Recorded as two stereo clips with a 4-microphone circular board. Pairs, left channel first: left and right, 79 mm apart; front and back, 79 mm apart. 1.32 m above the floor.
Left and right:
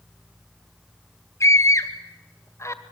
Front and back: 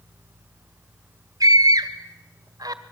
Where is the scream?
140° left, 1.8 m.